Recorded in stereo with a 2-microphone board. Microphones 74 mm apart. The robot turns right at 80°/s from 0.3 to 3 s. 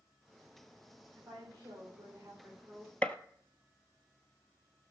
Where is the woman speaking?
135° right, 7.5 m; by 2.9 s 5° left, 7.5 m.